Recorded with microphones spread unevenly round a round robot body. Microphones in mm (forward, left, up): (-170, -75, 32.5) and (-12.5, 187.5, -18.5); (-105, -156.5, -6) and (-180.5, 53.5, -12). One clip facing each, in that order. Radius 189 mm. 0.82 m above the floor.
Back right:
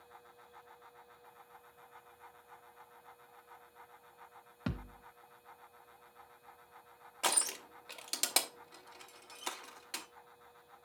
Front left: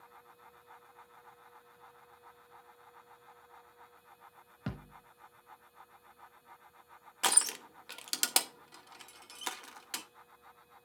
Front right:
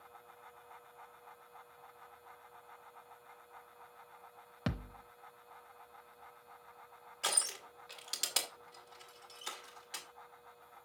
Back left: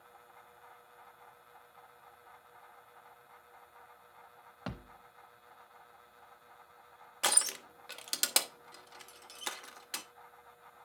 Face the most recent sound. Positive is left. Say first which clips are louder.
# front left 1 dB, back left 4 dB
turn(degrees=115)